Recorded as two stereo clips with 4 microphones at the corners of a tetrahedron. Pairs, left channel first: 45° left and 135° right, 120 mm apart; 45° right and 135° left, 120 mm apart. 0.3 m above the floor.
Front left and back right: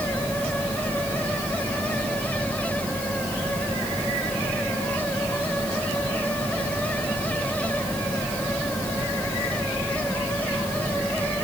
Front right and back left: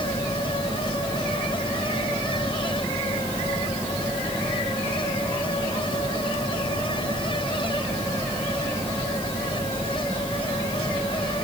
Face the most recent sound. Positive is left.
No sound to turn to.